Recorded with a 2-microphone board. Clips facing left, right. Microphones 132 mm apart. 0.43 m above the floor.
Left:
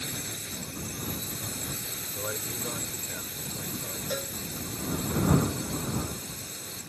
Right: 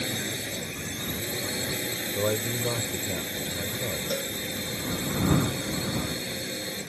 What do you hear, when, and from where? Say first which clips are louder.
0.0 s a drone: right 7 dB; 80° right
2.1 s a man speaking: right 9 dB; 45° right (ahead or behind)
4.1 s a cowbell: left 1 dB; 5° right (ahead or behind)